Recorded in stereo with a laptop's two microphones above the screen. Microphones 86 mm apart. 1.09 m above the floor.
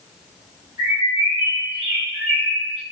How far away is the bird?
About 4 m.